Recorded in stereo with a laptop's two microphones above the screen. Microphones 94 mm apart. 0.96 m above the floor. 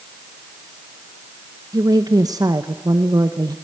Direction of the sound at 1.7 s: 40° right (ahead or behind).